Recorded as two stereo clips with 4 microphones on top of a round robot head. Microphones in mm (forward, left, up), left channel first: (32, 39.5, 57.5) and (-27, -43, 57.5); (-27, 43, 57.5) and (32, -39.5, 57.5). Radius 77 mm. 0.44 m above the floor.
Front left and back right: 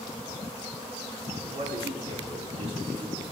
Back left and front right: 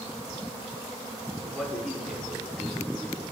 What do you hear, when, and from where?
1.4 s a man speaking: 145° right, 5 m; by 3.2 s 150° right, 3 m